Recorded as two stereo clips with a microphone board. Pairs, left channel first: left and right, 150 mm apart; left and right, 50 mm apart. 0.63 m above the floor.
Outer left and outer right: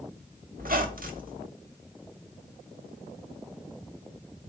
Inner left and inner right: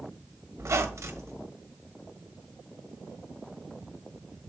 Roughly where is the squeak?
Right.